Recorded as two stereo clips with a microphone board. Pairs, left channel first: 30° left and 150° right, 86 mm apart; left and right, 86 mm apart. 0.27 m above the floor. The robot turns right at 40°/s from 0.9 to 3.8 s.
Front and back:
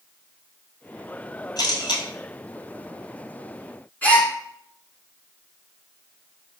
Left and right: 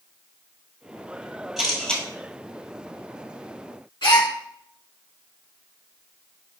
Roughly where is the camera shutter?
Ahead.